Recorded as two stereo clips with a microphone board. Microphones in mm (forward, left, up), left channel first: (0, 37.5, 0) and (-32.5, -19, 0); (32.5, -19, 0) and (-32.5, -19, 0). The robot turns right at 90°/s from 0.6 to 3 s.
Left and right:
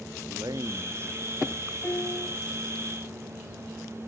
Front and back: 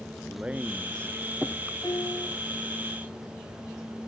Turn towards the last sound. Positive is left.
turn(degrees=105)